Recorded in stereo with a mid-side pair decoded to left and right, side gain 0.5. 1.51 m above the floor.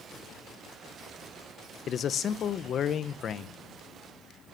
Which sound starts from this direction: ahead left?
A man speaking, at 1.9 s.